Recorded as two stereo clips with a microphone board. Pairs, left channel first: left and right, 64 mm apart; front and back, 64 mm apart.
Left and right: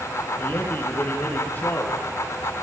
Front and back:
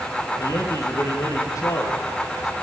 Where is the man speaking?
30° left, 5 m.